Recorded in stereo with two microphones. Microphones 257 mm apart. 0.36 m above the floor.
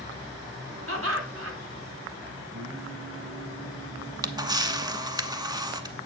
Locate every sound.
0.9 s laughter: 55° right (ahead or behind), 3 m
2.5 s singing: 55° right (ahead or behind), 2.0 m
4.0 s a camera shutter: 15° right (ahead or behind), 0.7 m